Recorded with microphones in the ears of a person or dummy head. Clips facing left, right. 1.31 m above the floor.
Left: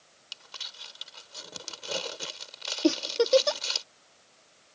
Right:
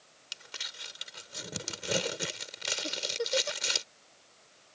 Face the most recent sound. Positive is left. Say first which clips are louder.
# left 13 dB
turn(degrees=85)